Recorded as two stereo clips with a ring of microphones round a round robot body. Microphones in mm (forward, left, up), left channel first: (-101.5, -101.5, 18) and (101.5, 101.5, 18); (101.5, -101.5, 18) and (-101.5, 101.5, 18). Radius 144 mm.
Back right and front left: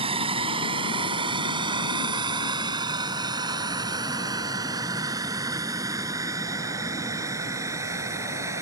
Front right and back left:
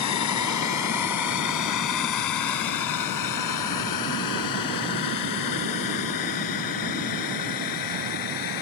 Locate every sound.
0.0 s a drone: 25° right; by 8.6 s 35° right